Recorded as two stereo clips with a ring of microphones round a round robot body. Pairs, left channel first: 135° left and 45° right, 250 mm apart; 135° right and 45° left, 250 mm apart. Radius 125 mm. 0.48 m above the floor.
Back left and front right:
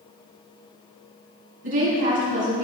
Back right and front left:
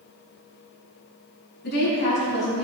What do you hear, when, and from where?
1.6 s a woman speaking: 85° right, 4.5 m